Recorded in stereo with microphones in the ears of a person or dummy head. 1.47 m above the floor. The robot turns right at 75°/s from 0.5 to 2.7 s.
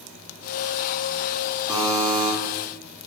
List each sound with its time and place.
1.7 s a buzzer: 170° right, 0.6 m; by 2.3 s 120° right, 0.6 m